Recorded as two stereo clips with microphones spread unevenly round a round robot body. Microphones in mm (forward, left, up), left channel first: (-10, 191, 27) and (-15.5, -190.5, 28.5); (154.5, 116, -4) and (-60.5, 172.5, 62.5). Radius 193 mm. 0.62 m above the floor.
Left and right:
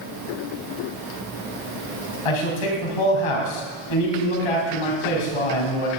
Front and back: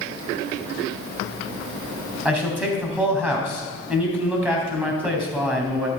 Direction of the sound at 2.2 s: 80° left.